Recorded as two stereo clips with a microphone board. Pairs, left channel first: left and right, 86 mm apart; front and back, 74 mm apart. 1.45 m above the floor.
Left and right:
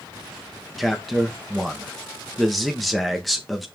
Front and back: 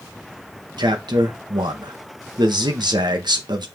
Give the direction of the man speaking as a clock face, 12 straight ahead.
6 o'clock.